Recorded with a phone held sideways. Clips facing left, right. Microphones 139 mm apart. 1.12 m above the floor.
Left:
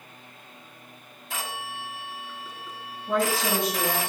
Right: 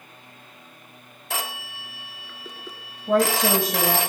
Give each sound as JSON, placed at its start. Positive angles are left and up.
{"t": 1.3, "sound": "a phone ringing", "side_deg": -75, "distance_m": 1.7}
{"t": 3.1, "sound": "a woman speaking", "side_deg": -50, "distance_m": 6.5}